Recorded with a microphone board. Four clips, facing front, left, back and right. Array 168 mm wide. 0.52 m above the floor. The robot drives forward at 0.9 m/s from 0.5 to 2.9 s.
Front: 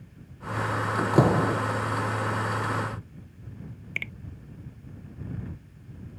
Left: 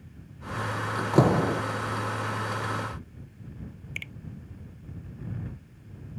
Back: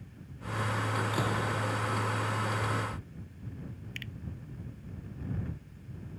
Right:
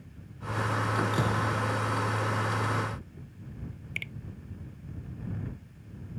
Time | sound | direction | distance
1.1 | a door slam | 45° left | ?
4.0 | a finger snap | straight ahead | ?